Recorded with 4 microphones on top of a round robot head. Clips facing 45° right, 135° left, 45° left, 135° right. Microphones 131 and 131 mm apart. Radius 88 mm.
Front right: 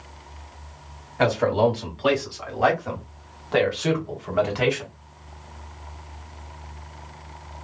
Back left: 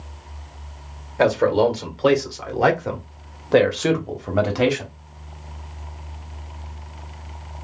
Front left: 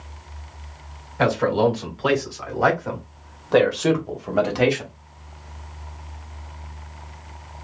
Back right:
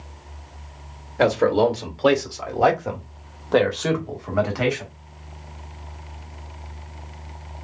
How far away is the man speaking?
About 1.9 m.